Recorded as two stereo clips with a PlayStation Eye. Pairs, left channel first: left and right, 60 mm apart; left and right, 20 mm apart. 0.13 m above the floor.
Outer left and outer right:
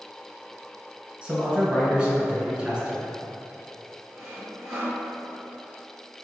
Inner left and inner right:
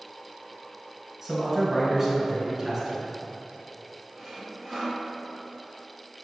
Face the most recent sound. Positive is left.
turn(degrees=0)  # may be behind; listen again after turning